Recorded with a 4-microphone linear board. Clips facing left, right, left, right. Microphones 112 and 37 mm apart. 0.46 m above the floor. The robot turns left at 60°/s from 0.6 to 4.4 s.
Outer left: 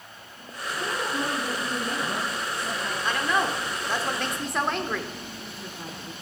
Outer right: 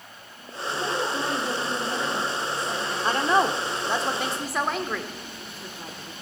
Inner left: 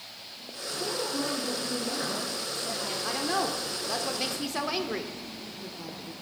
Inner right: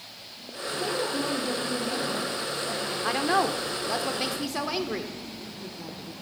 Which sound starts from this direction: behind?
A woman speaking, at 0.8 s.